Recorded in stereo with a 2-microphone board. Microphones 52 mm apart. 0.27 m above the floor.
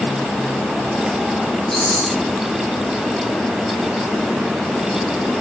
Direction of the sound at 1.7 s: 10° left (ahead or behind).